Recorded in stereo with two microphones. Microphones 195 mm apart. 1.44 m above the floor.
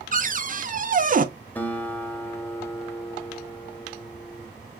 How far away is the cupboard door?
About 0.5 m.